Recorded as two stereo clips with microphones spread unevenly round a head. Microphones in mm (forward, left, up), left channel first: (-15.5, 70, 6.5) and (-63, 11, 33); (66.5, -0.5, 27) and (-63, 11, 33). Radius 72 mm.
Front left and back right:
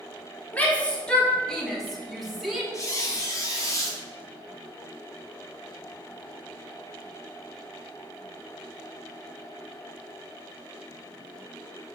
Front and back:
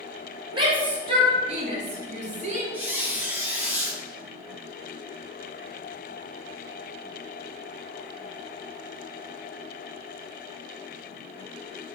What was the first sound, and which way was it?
A shout, 120° left.